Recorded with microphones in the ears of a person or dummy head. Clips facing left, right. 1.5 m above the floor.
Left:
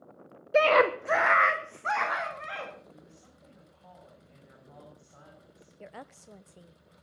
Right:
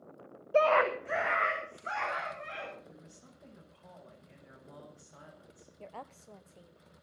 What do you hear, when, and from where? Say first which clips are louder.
0.5 s a scream: left 4 dB; 30° left (ahead or behind), 0.7 m; by 2.7 s 65° left (ahead or behind), 2.5 m
2.9 s a woman speaking: left 1 dB; 30° right (ahead or behind), 6.5 m
5.8 s a woman speaking: left 1 dB; 15° left (ahead or behind), 0.9 m